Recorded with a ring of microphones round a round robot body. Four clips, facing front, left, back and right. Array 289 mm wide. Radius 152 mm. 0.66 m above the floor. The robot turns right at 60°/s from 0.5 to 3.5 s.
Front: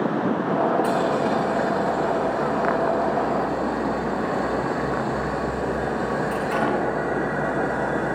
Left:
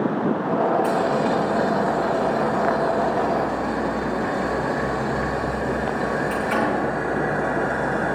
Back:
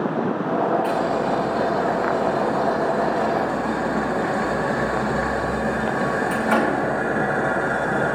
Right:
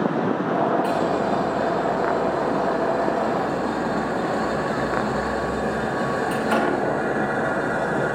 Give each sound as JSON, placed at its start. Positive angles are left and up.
{"t": 0.8, "sound": "boiling", "azimuth_deg": 40, "distance_m": 5.5}